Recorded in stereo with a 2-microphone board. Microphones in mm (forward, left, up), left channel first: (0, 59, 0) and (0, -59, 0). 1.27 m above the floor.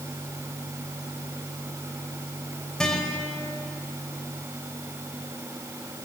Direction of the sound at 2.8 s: 5° left (ahead or behind).